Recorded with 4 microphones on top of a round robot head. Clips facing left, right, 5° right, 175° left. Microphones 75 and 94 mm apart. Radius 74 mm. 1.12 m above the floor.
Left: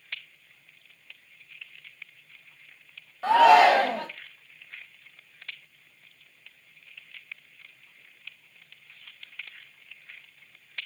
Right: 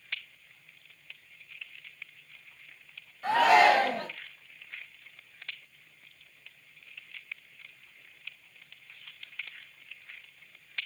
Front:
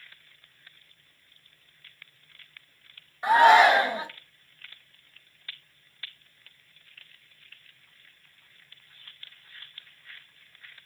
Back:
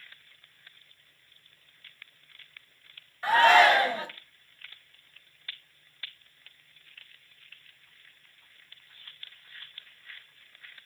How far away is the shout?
About 0.5 m.